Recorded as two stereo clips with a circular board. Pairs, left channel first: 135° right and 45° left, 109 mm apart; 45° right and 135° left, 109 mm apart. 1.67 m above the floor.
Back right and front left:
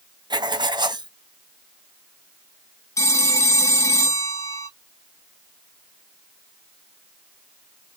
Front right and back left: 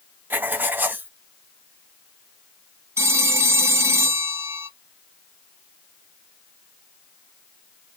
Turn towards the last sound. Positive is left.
turn(degrees=-175)